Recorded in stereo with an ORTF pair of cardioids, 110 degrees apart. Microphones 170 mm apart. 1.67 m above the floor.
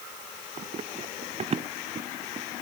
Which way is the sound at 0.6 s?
40° right.